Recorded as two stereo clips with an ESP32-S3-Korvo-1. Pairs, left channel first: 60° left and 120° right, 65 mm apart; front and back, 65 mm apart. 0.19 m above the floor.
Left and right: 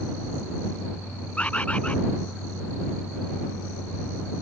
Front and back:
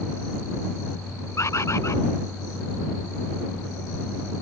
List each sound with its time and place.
1.4 s a bird: 5° right